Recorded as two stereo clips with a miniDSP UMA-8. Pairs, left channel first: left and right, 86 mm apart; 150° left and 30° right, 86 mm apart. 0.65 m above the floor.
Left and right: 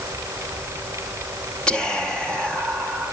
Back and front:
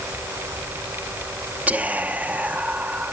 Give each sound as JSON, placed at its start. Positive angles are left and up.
{"t": 1.7, "sound": "whispering", "azimuth_deg": 20, "distance_m": 0.7}